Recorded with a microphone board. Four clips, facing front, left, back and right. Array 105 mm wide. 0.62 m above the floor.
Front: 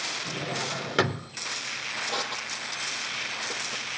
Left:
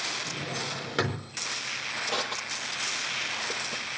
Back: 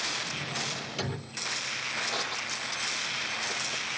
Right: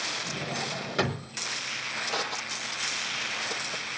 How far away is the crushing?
About 8.5 m.